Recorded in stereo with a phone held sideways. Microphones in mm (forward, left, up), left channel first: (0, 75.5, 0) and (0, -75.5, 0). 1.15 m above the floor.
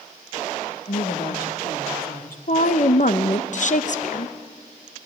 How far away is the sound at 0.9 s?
About 1.2 m.